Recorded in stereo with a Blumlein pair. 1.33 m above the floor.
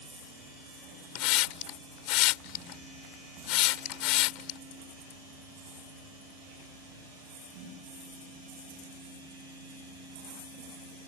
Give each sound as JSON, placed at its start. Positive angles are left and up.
{"t": 1.1, "sound": "a hiss", "azimuth_deg": 40}